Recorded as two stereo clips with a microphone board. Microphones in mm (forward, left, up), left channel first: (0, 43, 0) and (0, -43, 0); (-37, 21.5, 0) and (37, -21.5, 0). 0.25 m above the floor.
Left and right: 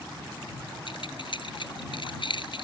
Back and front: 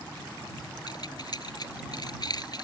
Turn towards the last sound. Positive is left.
turn(degrees=110)